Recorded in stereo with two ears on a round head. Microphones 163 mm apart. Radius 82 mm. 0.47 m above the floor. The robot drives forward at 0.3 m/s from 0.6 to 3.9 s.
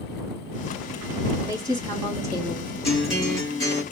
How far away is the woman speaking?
About 4 m.